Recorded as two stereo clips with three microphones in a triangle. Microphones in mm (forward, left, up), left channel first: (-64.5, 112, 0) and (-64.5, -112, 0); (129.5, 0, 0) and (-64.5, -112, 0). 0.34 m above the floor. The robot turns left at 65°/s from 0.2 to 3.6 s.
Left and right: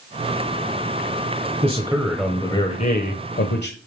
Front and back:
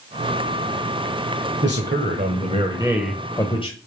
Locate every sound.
1.6 s a man speaking: 145° right, 1.4 m; by 3.8 s 85° left, 1.4 m